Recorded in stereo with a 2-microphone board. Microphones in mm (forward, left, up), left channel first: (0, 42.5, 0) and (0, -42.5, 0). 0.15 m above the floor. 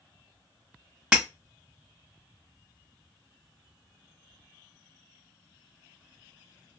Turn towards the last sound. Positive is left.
turn(degrees=-10)  # may be behind; listen again after turning